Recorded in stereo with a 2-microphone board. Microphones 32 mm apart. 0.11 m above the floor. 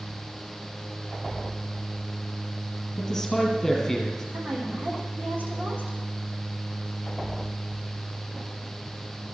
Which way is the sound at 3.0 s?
5° left (ahead or behind).